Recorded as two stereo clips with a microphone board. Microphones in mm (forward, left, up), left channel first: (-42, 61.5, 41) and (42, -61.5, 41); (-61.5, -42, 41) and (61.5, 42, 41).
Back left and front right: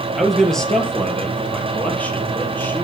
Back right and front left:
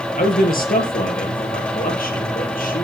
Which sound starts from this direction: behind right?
A man speaking, at 0.2 s.